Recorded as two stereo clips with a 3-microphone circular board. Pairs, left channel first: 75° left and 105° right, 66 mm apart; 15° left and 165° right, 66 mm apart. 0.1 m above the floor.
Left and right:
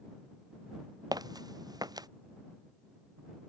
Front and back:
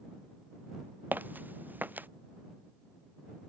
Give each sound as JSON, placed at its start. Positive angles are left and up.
{"t": 1.1, "sound": "footsteps", "azimuth_deg": -100}